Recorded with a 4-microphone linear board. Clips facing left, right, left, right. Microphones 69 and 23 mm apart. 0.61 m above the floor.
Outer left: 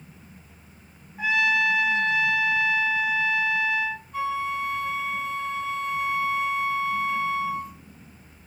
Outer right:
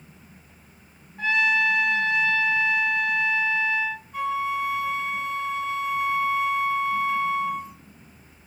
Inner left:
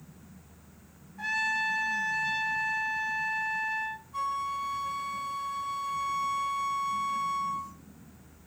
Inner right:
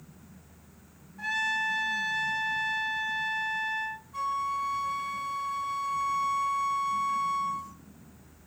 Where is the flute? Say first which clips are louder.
Outer right 2 dB, inner right 2 dB; centre (ahead or behind), 0.6 m.